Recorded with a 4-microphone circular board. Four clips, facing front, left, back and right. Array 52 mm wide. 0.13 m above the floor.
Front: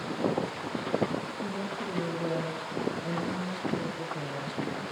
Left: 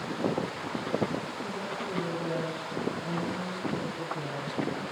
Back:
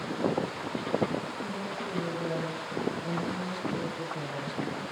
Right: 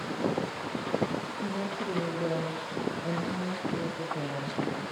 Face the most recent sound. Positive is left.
turn(degrees=-95)